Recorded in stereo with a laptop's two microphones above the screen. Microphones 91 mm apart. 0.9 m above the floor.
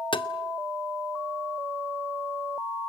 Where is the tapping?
55° left (ahead or behind), 1.0 m.